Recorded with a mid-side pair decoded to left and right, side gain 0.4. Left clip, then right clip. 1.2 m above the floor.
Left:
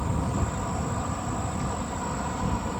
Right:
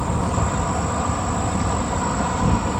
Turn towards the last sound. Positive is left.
turn(degrees=-65)